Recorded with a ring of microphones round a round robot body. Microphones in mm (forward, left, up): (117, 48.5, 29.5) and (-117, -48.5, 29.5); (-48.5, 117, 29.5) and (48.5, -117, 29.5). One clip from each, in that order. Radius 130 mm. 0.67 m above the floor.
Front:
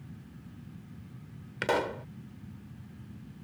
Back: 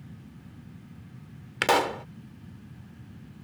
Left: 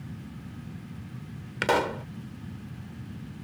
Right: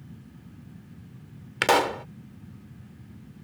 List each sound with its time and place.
1.6 s a pop: 120° right